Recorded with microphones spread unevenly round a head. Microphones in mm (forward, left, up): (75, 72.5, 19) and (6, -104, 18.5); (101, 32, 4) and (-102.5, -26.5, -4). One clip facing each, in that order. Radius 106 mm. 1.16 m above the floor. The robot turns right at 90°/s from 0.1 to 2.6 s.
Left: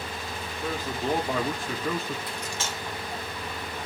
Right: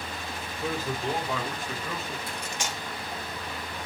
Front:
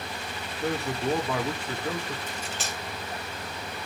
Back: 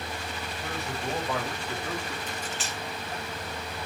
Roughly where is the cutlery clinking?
Ahead right.